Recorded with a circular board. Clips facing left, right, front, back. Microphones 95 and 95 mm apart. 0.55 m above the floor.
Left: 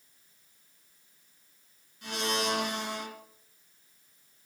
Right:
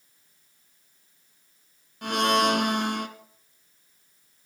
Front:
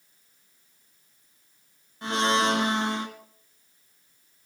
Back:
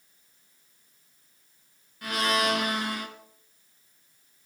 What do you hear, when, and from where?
2.0 s a blender: 60° right, 1.7 m